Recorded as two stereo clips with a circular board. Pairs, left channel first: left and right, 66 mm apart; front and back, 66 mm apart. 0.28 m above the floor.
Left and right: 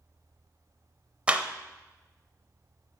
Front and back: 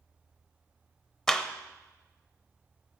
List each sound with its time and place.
1.3 s a clap: 65° right, 0.7 m